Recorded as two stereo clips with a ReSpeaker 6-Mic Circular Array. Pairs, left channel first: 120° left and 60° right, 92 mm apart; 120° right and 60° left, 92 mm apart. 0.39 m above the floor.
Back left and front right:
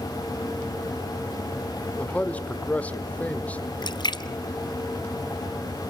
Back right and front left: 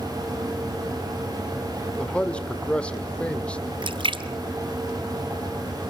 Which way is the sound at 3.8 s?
80° left.